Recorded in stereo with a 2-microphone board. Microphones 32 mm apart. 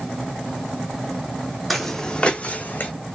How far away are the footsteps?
About 0.6 m.